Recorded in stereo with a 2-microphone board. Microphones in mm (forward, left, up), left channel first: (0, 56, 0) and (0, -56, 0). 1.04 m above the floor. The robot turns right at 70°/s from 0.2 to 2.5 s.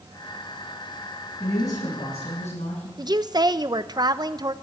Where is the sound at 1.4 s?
15° left, 8.5 m; by 2.9 s 90° left, 8.5 m.